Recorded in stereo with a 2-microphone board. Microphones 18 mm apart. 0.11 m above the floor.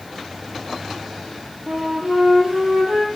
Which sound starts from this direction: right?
A flute, at 1.7 s.